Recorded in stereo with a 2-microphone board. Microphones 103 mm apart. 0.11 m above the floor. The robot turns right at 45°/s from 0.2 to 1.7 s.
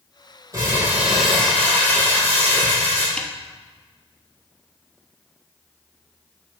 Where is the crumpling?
35° right, 4.5 m; by 3.1 s 20° left, 4.5 m.